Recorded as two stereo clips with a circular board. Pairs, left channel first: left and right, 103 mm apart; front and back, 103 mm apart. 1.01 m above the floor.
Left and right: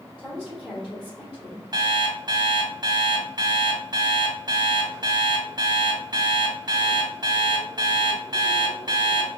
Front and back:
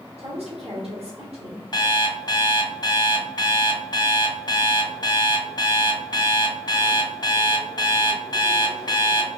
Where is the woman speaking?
175° left, 2.5 m.